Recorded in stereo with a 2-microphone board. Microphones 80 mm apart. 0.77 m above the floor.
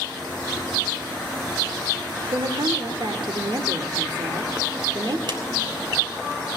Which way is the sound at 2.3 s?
70° right (ahead or behind).